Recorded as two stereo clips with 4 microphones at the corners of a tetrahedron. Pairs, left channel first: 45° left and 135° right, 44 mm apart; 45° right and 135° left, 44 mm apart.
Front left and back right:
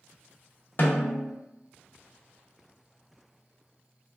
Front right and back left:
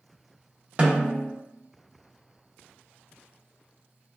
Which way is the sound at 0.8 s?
75° left.